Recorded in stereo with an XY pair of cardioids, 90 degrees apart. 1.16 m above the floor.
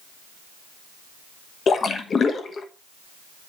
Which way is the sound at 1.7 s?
50° left.